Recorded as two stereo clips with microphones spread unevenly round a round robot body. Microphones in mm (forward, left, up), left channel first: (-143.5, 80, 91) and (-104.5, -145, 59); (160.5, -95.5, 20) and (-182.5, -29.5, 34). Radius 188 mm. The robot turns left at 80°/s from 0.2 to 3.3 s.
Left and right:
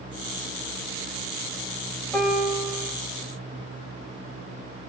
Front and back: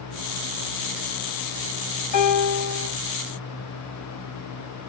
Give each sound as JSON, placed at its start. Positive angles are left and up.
{"t": 2.1, "sound": "a piano", "azimuth_deg": 10, "distance_m": 2.5}